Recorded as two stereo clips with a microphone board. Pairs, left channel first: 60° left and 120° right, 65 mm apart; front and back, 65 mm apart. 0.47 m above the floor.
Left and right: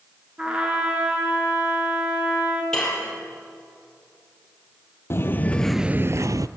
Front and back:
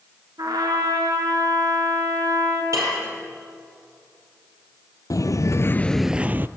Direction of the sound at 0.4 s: 165° left.